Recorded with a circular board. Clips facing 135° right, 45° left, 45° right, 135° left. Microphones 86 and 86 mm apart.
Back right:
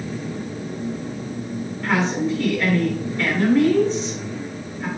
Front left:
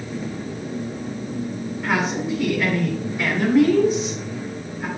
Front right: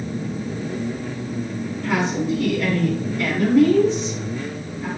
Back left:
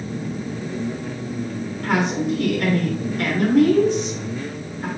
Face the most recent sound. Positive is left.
turn(degrees=125)